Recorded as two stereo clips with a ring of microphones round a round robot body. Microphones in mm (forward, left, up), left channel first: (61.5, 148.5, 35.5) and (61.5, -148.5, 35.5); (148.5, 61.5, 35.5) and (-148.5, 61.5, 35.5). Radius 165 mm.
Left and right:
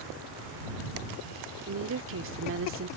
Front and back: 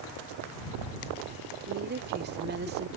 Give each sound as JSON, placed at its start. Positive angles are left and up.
{"t": 1.7, "sound": "a woman speaking", "azimuth_deg": -130}